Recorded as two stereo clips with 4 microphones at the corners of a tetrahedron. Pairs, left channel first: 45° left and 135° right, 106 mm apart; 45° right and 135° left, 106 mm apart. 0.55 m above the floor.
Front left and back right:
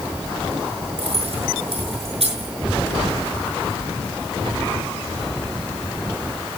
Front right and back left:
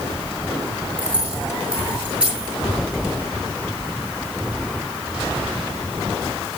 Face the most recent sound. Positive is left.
turn(degrees=-145)